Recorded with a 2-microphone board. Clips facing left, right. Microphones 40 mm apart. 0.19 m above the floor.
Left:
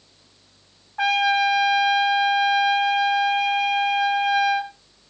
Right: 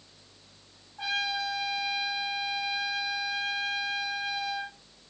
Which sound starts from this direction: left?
A trumpet, at 1.0 s.